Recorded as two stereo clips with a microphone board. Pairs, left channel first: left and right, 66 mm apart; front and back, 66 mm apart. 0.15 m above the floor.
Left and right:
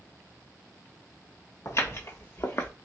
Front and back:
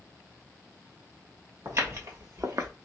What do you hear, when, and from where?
1.6 s footsteps: 130° left, 1.9 m; by 2.7 s 140° left, 0.8 m